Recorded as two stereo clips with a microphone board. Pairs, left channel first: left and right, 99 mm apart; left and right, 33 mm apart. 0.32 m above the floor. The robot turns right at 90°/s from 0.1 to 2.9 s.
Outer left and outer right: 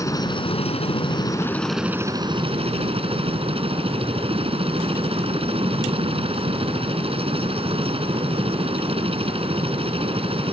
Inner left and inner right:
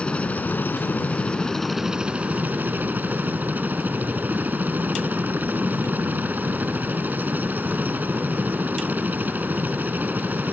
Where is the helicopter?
35° left; by 10.5 s 75° right.